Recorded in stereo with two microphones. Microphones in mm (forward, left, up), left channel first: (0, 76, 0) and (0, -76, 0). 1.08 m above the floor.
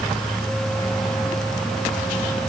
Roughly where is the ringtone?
No ringtone in this recording.